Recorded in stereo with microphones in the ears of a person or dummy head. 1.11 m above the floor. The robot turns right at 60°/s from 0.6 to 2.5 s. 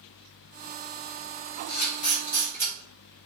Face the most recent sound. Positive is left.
turn(degrees=15)  # may be behind; listen again after turning